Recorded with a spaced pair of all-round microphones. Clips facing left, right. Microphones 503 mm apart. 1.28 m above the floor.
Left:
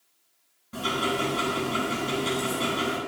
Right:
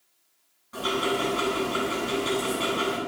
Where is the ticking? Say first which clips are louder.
Right 2 dB; 45° left (ahead or behind), 8.5 m.